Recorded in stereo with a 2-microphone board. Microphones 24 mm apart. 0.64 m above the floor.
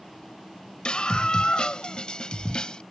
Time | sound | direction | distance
0.8 | a scream | 45° left (ahead or behind) | ?